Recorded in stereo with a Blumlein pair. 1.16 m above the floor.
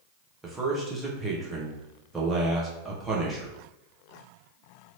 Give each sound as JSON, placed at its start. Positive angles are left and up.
{"t": 0.4, "sound": "a man speaking", "azimuth_deg": -5, "distance_m": 1.1}